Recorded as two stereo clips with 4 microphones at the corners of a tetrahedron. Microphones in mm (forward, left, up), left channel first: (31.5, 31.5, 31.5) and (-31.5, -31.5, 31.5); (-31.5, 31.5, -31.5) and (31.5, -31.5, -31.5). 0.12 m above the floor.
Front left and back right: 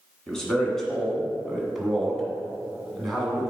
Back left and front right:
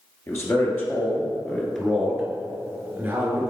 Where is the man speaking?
125° left, 1.7 m; by 3.5 s 45° right, 1.6 m.